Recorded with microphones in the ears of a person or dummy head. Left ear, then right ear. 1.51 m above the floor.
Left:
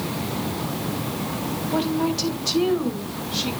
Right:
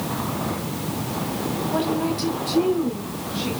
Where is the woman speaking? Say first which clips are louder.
Left 1 dB; 10° left (ahead or behind), 1.7 m; by 3.5 s 50° left (ahead or behind), 3 m.